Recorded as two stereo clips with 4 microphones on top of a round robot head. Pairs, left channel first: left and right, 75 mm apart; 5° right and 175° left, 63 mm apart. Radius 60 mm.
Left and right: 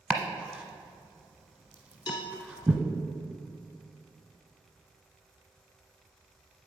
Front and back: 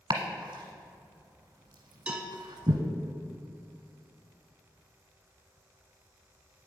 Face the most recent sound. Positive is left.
turn(degrees=100)